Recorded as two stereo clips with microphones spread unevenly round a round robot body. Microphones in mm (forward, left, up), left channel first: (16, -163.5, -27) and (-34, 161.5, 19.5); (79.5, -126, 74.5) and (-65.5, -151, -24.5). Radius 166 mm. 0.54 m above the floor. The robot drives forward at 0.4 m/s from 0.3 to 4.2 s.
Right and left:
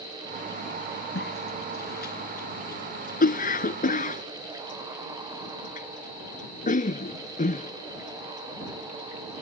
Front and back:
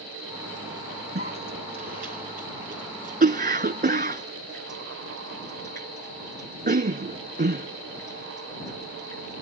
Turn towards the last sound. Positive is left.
turn(degrees=-150)